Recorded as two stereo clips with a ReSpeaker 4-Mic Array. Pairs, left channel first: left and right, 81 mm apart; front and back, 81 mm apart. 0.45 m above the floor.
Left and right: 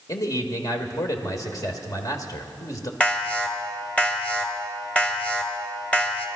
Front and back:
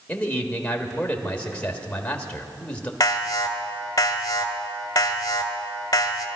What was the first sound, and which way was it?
A man speaking, 70° left.